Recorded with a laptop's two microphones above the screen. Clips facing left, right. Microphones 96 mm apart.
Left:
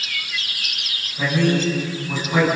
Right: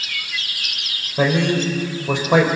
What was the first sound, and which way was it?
A man speaking, 80° right.